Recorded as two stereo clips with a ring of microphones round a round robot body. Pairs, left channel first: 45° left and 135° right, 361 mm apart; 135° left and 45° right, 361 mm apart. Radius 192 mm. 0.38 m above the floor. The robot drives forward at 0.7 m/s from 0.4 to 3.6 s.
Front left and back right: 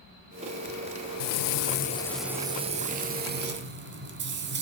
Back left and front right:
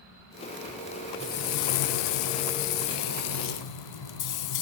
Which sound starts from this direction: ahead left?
Frying, at 1.2 s.